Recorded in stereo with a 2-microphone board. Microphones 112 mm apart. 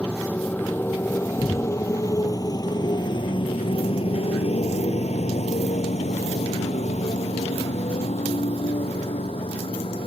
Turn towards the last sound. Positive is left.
turn(degrees=55)  # may be behind; listen again after turning